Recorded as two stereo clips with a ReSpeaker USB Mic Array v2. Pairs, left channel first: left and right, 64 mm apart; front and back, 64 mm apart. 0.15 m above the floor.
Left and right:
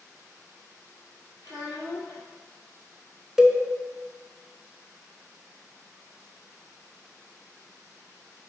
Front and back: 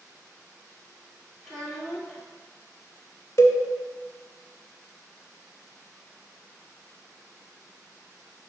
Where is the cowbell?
10° right, 0.6 m.